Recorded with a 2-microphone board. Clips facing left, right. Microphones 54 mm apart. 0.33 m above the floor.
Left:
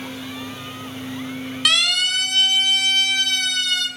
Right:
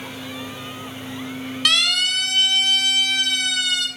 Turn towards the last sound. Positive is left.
turn(degrees=-5)  # may be behind; listen again after turning